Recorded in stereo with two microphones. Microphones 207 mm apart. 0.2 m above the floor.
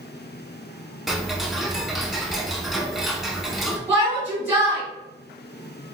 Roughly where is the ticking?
Centre.